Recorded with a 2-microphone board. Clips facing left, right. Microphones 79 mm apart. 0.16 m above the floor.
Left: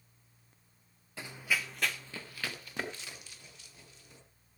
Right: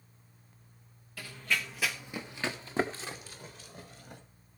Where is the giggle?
No giggle in this recording.